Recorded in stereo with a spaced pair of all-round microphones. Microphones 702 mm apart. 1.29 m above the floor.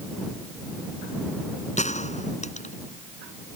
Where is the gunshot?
10° left (ahead or behind).